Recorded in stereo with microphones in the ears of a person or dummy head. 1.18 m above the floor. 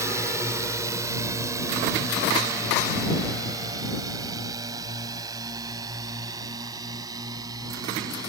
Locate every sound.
0.0 s a drone: 15° right (ahead or behind); by 8.3 s 20° right (ahead or behind)